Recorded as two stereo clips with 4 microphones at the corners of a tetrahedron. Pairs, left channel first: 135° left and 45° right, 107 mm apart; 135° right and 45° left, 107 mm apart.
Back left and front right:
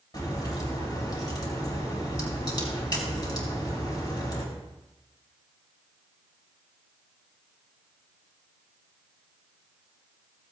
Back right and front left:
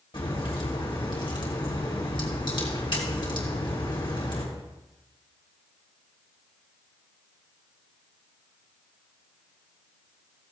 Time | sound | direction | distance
0.1 | a crack | 175° right | 3 m